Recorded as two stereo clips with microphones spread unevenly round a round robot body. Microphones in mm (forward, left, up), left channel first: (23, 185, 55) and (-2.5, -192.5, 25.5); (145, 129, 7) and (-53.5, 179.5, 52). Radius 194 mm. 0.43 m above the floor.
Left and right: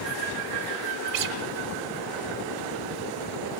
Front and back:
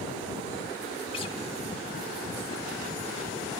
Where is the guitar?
70° right, 1.4 m.